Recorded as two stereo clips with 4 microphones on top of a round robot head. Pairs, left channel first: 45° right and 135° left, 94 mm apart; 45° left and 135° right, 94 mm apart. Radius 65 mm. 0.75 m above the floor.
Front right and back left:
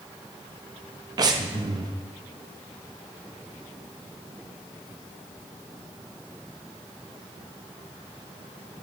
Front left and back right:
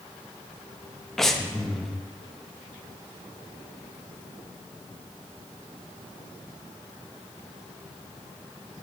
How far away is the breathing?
About 0.6 m.